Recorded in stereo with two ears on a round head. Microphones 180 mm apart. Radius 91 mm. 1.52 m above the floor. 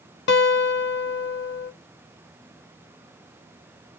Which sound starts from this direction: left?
A guitar, at 0.3 s.